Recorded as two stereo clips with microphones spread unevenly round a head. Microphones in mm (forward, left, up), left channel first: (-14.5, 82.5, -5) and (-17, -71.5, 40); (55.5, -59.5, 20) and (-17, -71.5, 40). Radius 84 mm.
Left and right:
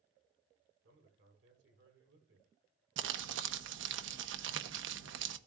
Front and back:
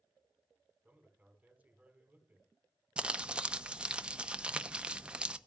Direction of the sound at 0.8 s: 100° right.